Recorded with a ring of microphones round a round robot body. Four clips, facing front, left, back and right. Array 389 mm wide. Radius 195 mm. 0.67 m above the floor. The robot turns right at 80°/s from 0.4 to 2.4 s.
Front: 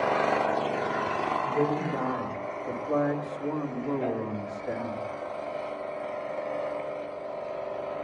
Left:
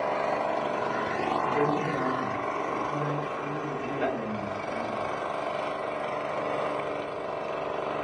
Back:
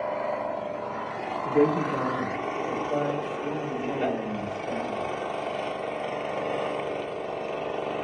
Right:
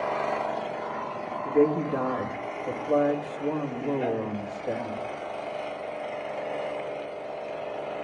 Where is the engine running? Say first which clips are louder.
Even, front 4 dB; straight ahead, 0.7 m; by 8.0 s 160° left, 0.7 m.